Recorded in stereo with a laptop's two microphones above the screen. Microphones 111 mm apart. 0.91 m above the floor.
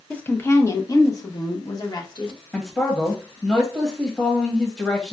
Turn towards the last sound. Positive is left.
turn(degrees=15)  # may be behind; listen again after turning